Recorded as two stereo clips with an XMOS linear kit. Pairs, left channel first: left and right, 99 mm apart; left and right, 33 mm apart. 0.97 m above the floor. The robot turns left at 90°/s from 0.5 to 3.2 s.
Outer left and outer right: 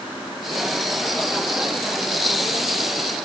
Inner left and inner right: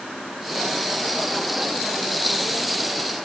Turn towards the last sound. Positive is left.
No sound to turn to.